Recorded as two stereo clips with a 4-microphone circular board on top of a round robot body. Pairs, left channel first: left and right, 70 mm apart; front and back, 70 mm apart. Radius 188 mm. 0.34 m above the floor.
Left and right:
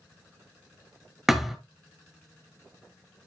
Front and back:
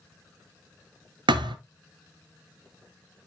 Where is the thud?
175° right, 0.6 m.